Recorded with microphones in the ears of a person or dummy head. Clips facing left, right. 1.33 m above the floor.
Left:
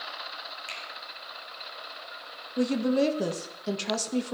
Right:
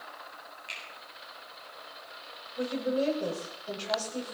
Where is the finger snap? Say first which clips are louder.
Left 4 dB; 55° left (ahead or behind), 3.5 m.